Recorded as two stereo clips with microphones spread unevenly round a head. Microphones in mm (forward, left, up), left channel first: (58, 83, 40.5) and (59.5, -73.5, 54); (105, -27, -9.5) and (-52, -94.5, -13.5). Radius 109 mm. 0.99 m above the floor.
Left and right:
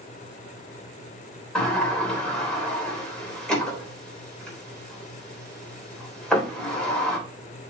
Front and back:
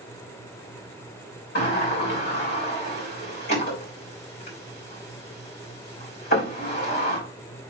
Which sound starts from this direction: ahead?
A sliding door, at 1.6 s.